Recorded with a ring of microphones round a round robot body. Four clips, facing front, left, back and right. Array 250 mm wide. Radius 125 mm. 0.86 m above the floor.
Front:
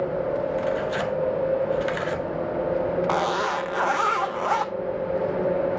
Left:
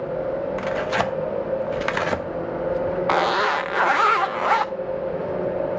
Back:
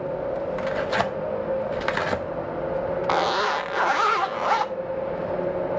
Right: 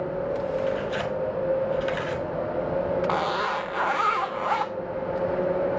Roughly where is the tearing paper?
Behind left.